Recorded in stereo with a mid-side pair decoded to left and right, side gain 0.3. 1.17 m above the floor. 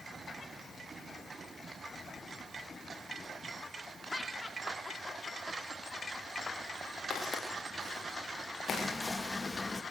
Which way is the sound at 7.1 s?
70° left.